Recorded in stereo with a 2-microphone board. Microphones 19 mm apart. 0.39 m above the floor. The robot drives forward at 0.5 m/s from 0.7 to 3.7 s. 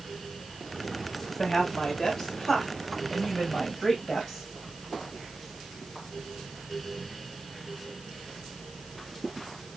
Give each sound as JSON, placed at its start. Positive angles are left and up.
{"t": 1.4, "sound": "a woman speaking", "side_deg": 40, "distance_m": 1.6}